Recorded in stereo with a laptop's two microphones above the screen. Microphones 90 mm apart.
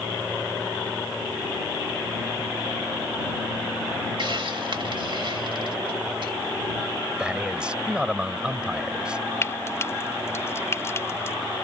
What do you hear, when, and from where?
4.2 s a hiss: 65° right (ahead or behind)
7.2 s a man speaking: 10° right (ahead or behind)
9.4 s frying: 30° left (ahead or behind)